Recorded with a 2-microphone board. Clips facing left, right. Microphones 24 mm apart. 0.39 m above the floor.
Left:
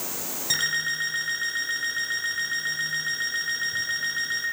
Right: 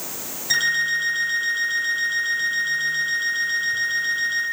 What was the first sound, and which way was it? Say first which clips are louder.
An alarm clock: right 6 dB; 5° left (ahead or behind).